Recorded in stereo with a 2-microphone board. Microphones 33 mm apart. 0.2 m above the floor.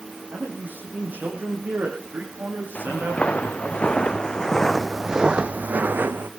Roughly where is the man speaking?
Right.